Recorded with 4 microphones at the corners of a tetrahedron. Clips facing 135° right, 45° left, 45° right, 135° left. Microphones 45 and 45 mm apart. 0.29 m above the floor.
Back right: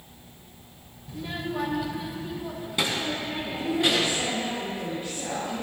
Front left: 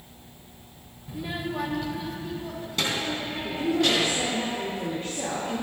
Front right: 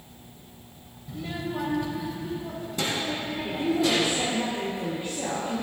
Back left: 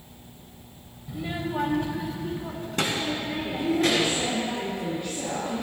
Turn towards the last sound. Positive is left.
turn(degrees=30)